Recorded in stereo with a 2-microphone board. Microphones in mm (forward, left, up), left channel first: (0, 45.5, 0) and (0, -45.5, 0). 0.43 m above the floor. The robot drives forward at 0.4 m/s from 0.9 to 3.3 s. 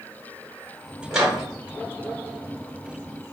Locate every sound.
1.1 s a microwave: 5° right (ahead or behind), 1.2 m; by 1.4 s 10° right (ahead or behind), 1.1 m